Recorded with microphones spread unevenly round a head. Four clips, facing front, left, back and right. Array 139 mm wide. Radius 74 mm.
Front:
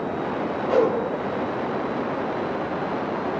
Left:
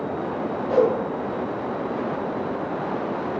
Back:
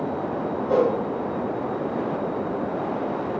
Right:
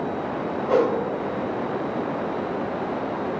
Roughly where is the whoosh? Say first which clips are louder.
Left 1 dB, front 1 dB; behind right.